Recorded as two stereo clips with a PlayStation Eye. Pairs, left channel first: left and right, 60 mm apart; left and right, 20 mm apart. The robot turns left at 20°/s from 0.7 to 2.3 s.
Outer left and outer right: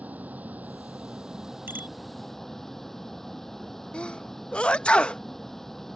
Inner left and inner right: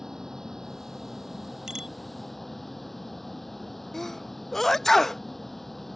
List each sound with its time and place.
0.0 s a vehicle: 155° right; by 6.0 s 175° left
1.7 s a bicycle bell: 35° right (ahead or behind); by 1.9 s 30° right (ahead or behind)
3.9 s a sneeze: 20° left (ahead or behind)